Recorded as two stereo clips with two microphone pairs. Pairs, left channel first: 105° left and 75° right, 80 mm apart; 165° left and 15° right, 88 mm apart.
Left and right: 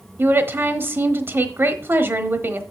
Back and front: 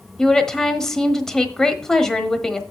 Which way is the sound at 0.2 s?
115° right.